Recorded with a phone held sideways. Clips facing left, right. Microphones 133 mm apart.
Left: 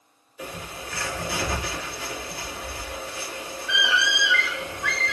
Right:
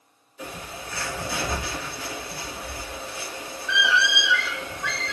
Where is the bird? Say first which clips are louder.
Even; 15° left (ahead or behind), 3 m.